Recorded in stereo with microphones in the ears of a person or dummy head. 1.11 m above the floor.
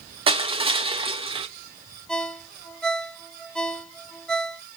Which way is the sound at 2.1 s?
5° left (ahead or behind).